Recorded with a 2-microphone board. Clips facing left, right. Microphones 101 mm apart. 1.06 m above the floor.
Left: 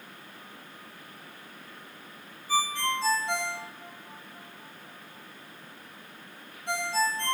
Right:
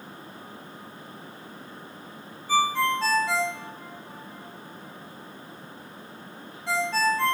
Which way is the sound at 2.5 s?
80° right.